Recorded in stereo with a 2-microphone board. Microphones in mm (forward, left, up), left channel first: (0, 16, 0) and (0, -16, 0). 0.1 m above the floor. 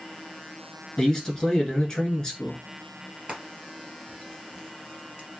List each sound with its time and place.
1.0 s a man speaking: 20° left (ahead or behind), 1.3 m
3.3 s frying: 25° right (ahead or behind), 2.5 m